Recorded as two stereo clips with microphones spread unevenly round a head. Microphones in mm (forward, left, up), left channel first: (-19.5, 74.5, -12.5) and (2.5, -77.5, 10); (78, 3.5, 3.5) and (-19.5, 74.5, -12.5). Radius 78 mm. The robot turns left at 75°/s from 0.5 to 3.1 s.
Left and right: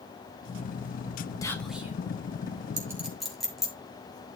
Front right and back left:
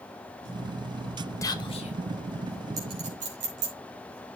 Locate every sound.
1.4 s whispering: 30° left, 2 m; by 1.9 s 10° right, 2 m
2.8 s a clink: 145° right, 2.5 m; by 3.7 s 170° right, 2.5 m